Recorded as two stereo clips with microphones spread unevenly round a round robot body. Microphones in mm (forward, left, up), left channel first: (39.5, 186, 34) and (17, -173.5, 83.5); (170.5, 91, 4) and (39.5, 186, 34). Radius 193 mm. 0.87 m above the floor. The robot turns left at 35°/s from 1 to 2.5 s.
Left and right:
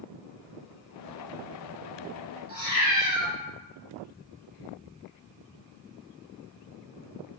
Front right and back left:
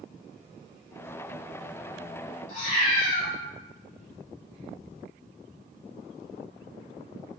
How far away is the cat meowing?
About 0.9 m.